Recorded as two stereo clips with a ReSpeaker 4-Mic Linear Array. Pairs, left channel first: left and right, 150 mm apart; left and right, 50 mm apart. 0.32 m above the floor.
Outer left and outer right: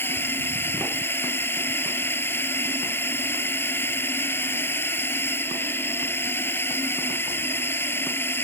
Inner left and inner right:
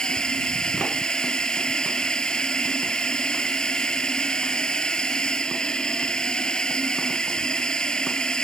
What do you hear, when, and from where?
0.0 s a drone: 15° left (ahead or behind)